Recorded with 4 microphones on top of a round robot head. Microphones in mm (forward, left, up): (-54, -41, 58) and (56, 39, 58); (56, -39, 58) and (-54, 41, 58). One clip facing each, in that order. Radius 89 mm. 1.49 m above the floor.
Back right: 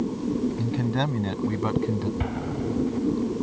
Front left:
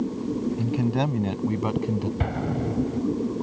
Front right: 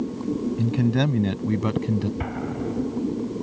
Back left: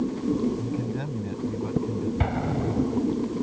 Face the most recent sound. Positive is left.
turn(degrees=85)